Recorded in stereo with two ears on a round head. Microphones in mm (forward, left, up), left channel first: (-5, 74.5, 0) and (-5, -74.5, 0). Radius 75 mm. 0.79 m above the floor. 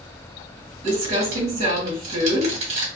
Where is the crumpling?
45° right (ahead or behind), 1.4 m.